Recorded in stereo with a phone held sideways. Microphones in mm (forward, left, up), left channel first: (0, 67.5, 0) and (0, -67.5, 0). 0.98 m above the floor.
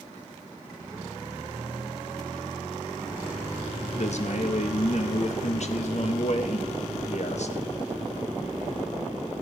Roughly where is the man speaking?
Left.